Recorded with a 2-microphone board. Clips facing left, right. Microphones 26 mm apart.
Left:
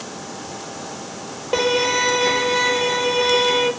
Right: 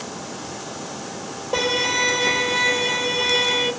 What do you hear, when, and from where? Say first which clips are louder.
1.5 s a violin: left 2 dB; 30° left (ahead or behind), 0.7 m